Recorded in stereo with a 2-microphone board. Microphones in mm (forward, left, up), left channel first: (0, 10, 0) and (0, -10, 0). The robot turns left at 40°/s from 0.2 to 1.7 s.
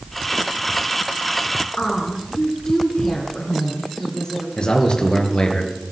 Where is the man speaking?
55° left (ahead or behind), 3 m.